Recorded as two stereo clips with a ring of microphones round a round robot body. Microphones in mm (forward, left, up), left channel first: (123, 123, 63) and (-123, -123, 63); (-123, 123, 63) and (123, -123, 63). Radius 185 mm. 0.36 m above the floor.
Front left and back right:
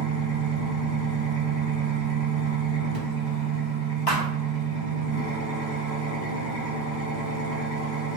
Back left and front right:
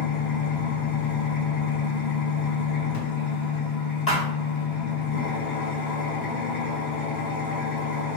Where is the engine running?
75° left, 1.5 m.